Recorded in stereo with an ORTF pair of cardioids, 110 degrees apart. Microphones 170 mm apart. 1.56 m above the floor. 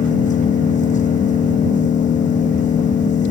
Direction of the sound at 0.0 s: 45° left.